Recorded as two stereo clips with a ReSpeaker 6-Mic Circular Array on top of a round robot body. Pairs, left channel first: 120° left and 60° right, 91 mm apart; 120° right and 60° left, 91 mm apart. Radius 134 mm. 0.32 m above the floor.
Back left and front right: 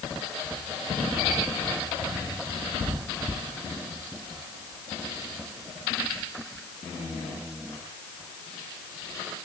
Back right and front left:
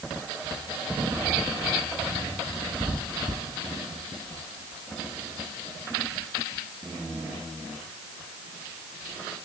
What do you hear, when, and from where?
Only background noise.